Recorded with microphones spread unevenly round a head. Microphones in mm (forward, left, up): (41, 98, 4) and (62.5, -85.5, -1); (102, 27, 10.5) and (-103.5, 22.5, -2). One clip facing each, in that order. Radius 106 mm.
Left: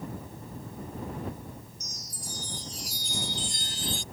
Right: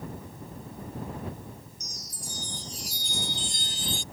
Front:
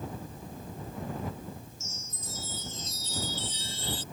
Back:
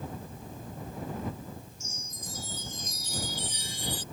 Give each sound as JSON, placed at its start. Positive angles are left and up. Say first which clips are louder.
{"t": 1.8, "sound": "a chime", "louder": "even, back 1 dB", "azimuth_deg": -100}